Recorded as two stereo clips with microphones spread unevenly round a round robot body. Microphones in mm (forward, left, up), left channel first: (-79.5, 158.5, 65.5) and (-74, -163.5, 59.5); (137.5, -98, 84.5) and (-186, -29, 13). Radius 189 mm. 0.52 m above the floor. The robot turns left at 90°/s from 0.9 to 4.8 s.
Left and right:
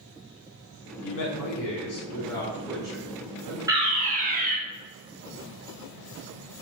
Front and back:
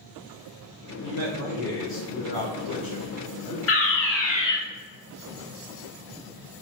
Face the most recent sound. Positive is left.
turn(degrees=-125)